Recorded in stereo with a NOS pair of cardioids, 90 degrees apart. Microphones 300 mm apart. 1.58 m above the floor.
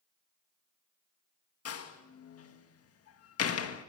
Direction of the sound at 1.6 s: 55° left.